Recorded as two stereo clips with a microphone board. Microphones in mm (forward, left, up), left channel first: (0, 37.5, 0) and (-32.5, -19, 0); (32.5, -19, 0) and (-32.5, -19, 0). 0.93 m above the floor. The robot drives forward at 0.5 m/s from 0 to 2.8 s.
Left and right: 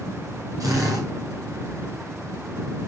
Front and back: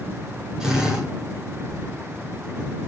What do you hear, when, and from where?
0.6 s a drill: 100° right, 6 m